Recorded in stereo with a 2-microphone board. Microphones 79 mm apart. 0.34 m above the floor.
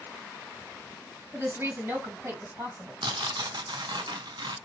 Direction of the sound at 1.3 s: 35° right (ahead or behind).